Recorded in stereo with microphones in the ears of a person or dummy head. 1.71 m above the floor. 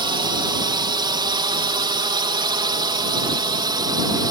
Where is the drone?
25° right (ahead or behind); by 4.3 s 20° right (ahead or behind).